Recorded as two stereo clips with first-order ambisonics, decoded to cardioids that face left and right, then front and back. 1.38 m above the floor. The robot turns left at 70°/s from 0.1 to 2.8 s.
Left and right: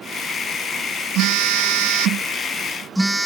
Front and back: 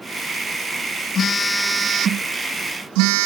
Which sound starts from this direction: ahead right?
A phone buzzing, at 1.1 s.